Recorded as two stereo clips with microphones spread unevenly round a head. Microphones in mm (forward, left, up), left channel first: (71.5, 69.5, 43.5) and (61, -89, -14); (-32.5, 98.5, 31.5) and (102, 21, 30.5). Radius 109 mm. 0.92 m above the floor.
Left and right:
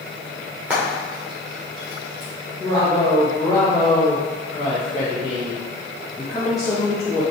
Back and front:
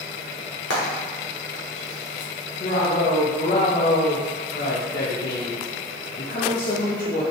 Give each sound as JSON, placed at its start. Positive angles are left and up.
{"t": 0.7, "sound": "frying", "azimuth_deg": 180, "distance_m": 1.1}
{"t": 2.6, "sound": "a woman speaking", "azimuth_deg": 170, "distance_m": 0.8}